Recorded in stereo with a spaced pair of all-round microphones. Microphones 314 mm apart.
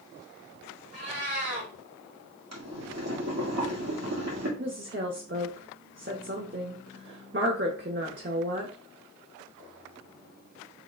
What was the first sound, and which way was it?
A cat meowing, 45° right (ahead or behind).